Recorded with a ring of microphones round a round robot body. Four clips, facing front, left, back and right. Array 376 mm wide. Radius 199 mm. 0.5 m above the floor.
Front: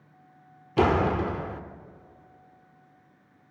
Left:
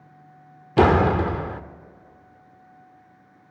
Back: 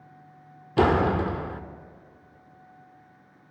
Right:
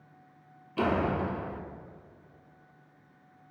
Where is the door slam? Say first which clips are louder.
Left 11 dB, back 1 dB; 95° left, 1.1 m.